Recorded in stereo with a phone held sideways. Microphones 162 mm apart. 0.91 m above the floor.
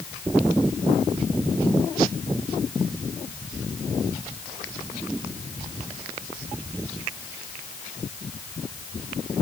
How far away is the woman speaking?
I don't hear a woman speaking.